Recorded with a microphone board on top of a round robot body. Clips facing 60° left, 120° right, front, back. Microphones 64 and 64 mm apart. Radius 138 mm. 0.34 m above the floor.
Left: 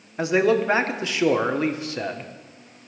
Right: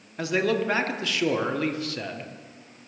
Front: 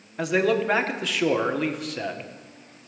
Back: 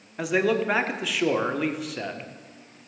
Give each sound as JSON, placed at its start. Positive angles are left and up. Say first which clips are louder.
{"t": 0.2, "sound": "a man speaking", "louder": "left 5 dB, front 1 dB", "azimuth_deg": 90, "distance_m": 1.4}